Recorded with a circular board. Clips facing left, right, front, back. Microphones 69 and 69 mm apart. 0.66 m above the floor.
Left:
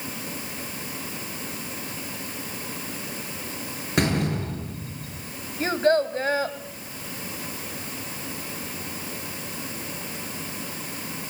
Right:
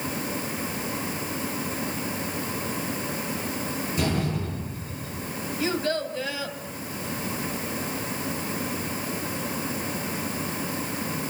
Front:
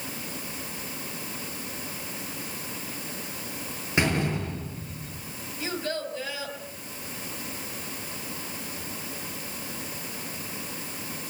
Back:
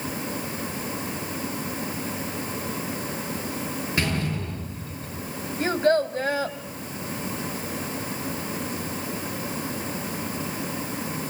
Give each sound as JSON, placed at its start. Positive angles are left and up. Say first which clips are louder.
{"t": 4.0, "sound": "a door slam", "louder": "left 4 dB, front 3 dB", "azimuth_deg": 70, "distance_m": 8.0}
{"t": 5.6, "sound": "a child speaking", "louder": "left 6 dB, back 11 dB", "azimuth_deg": 135, "distance_m": 2.5}